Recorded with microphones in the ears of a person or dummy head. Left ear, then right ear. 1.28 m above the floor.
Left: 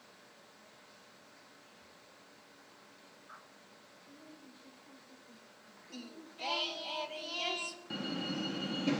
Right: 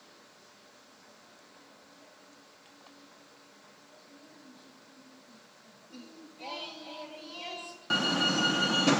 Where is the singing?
45° left (ahead or behind), 0.9 m.